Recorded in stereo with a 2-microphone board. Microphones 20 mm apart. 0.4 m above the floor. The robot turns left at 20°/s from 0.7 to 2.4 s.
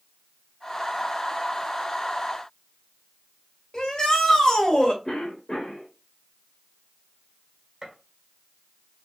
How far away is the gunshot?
About 1.4 m.